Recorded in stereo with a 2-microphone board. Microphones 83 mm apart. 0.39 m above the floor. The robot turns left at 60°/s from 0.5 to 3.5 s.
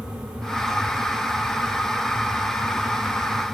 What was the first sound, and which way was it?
Only background noise.